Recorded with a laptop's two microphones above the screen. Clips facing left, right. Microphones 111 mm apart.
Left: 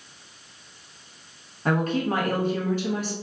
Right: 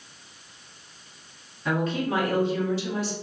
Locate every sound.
1.6 s a woman speaking: 50° left (ahead or behind), 0.8 m